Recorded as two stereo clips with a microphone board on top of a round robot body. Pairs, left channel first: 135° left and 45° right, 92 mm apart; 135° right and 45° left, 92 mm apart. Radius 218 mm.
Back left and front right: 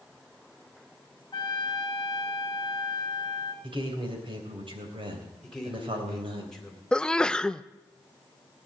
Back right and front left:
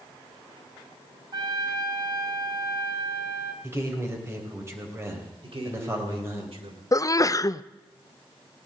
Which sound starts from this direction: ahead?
A man speaking, at 3.6 s.